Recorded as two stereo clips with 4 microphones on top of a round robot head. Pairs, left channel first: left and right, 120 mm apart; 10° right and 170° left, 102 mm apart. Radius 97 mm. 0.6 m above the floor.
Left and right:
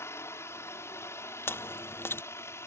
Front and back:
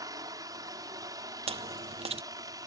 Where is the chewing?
160° left.